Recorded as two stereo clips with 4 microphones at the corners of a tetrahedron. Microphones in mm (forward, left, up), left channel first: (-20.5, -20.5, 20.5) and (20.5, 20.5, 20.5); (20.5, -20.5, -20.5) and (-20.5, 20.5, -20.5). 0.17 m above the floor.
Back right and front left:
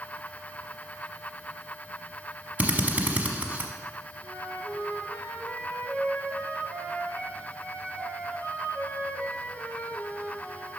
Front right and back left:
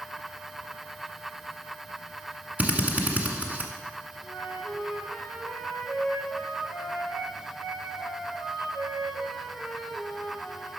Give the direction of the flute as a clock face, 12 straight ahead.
6 o'clock.